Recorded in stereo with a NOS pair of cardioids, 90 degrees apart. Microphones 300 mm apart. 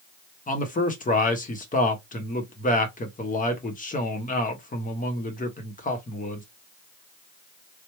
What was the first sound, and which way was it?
A man speaking, 25° left.